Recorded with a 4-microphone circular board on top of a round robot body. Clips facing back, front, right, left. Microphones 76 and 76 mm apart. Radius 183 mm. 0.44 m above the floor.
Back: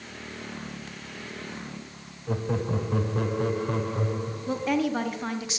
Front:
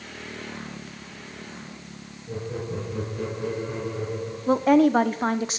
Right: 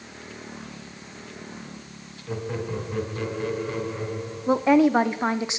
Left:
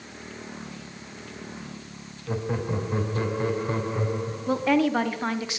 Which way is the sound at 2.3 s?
160° left.